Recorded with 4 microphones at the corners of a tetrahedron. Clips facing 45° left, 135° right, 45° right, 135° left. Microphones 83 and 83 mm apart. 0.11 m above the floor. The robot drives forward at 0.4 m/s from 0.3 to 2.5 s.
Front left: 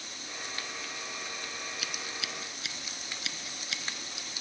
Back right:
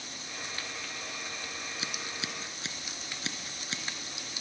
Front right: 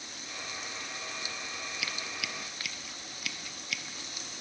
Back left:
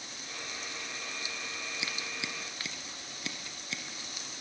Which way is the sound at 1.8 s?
175° right.